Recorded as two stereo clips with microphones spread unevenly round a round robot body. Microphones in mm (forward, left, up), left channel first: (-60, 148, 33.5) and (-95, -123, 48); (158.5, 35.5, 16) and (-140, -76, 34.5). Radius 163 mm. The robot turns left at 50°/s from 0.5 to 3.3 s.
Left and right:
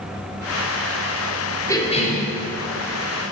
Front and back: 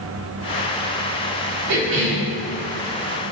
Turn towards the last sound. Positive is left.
turn(degrees=80)